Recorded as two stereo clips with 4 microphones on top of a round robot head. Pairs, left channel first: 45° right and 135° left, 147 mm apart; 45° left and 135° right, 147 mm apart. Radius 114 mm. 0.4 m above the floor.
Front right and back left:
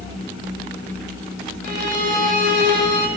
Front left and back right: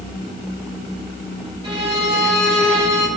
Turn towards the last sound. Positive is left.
turn(degrees=170)